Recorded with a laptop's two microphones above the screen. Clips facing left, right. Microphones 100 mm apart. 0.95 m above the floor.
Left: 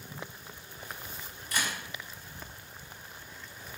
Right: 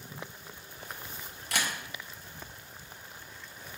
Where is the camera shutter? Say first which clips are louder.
Even; 70° right (ahead or behind), 0.6 m.